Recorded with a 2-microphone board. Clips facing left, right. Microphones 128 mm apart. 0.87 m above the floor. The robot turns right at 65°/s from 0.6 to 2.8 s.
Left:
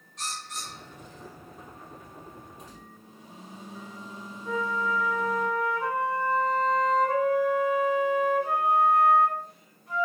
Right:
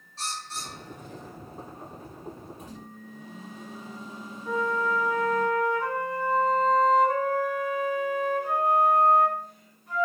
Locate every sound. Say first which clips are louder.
0.2 s a bird: right 1 dB; 35° right (ahead or behind), 0.6 m; by 1.4 s 60° right (ahead or behind), 0.6 m
2.6 s a microwave: right 5 dB; 55° right (ahead or behind), 1.2 m; by 5.5 s 60° right (ahead or behind), 1.2 m
4.5 s a flute: right 2 dB; centre (ahead or behind), 1.6 m